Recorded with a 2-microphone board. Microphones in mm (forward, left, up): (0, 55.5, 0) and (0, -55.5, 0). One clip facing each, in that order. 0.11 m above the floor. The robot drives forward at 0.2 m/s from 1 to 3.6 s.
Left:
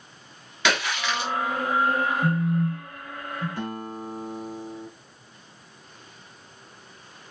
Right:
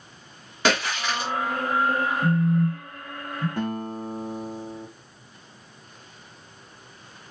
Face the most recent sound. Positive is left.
turn(degrees=-55)  # may be behind; listen again after turning